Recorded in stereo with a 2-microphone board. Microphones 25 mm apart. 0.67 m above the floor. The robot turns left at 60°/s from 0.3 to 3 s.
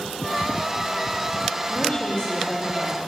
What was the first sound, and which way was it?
A woman speaking, 70° left.